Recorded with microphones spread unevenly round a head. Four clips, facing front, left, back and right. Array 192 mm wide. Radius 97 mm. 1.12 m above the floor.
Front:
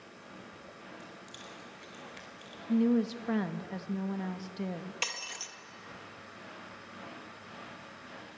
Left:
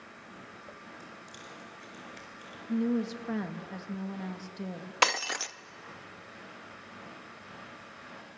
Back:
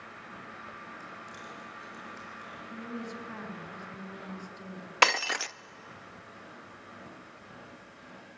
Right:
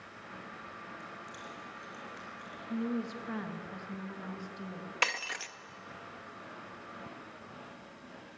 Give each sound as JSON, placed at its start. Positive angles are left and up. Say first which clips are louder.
{"t": 1.0, "sound": "keys jangling", "louder": "right 2 dB, back 4 dB", "azimuth_deg": 40, "distance_m": 4.0}
{"t": 2.7, "sound": "a woman speaking", "louder": "left 5 dB, front 14 dB", "azimuth_deg": 30, "distance_m": 2.0}
{"t": 5.0, "sound": "breaking glass", "louder": "left 7 dB, back 16 dB", "azimuth_deg": 145, "distance_m": 0.6}